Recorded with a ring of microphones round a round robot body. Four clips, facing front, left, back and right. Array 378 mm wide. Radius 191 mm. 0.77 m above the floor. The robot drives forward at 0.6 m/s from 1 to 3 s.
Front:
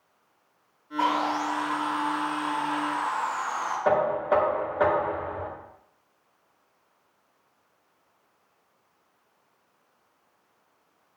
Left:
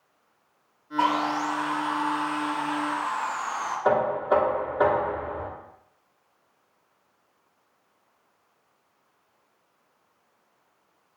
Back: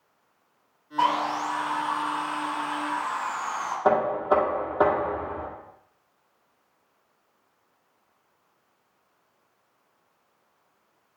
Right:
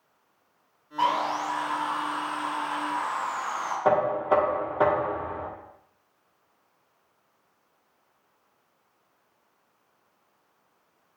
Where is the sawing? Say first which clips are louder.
Left 1 dB, back 1 dB; 165° left, 4 m; by 3.8 s 170° left, 5 m.